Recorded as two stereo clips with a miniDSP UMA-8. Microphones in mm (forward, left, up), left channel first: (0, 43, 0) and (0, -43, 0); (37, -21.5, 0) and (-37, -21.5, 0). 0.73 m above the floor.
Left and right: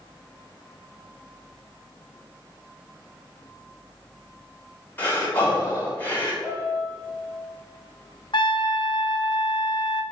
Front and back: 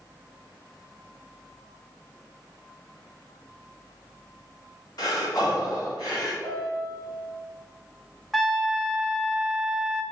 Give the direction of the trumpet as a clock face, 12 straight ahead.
9 o'clock.